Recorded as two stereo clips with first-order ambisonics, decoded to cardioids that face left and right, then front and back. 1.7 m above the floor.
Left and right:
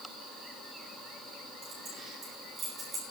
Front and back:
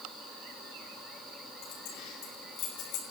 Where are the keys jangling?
25° right, 10 m; by 3.0 s 20° right, 8.5 m.